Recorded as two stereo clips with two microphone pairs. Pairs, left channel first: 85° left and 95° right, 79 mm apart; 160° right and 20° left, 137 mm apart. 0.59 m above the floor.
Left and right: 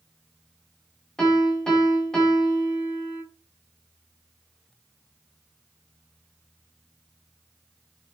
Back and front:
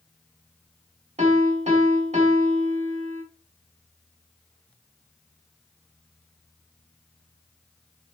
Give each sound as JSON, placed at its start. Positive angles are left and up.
{"t": 1.2, "sound": "a piano", "azimuth_deg": 5, "distance_m": 1.5}